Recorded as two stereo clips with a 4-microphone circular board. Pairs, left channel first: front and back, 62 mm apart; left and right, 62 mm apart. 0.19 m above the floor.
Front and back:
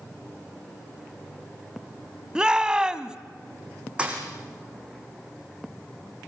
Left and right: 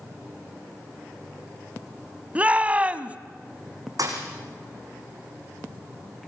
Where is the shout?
120° right, 1.0 m.